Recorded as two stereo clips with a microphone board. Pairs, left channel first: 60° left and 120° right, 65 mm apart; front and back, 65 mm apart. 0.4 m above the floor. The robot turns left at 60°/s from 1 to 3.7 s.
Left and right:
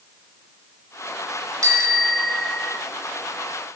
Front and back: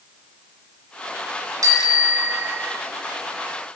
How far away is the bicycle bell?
About 4 m.